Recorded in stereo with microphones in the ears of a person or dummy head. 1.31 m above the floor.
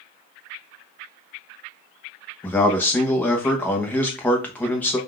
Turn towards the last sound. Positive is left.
turn(degrees=10)  # may be behind; listen again after turning